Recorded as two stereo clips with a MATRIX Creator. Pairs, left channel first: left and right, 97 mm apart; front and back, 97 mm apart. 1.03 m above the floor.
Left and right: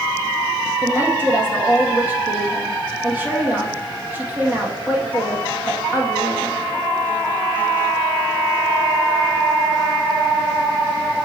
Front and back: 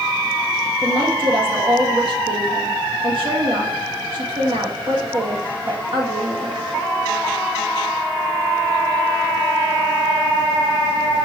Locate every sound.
0.8 s a woman speaking: 160° right, 1.8 m